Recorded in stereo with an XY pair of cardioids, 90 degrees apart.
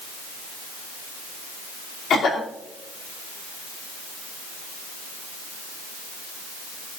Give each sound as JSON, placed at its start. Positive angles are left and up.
{"t": 2.1, "sound": "a cough", "azimuth_deg": 65, "distance_m": 2.5}